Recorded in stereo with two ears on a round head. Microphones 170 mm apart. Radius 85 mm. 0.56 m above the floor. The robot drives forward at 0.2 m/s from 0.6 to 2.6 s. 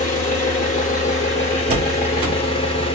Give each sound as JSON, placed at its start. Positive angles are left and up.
{"t": 0.0, "sound": "an engine running", "side_deg": 40, "distance_m": 0.9}
{"t": 1.7, "sound": "a door slam", "side_deg": -30, "distance_m": 0.9}